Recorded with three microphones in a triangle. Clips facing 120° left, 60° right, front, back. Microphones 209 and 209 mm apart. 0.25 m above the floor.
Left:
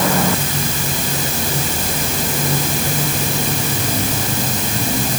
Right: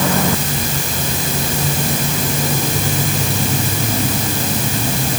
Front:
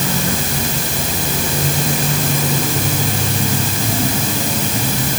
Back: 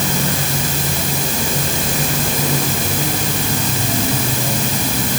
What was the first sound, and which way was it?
Only background noise.